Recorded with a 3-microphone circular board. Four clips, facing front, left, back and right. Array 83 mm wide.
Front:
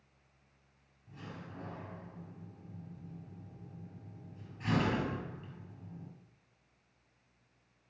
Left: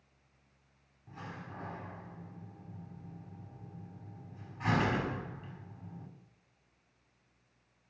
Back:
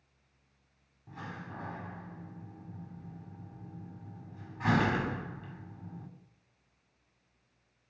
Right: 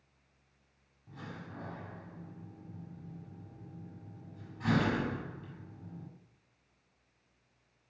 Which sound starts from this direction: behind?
A door slam, at 1.1 s.